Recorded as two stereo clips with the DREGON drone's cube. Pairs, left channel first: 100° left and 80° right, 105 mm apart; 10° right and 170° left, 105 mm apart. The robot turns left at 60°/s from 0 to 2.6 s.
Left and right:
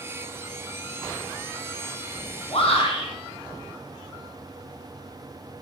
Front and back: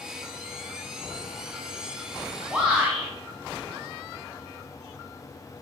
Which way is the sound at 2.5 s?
95° left.